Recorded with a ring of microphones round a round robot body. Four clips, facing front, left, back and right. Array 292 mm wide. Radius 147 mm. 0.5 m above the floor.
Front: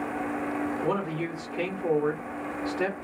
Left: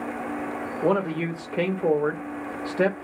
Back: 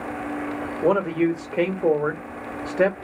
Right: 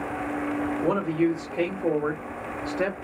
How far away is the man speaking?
About 1.7 m.